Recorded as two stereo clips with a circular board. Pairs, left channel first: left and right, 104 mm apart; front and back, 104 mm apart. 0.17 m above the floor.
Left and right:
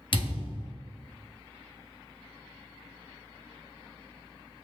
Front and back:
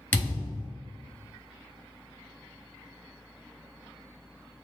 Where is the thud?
70° left, 1.1 m.